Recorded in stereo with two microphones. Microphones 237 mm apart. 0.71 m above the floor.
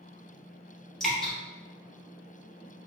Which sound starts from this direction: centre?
Dripping, at 1.0 s.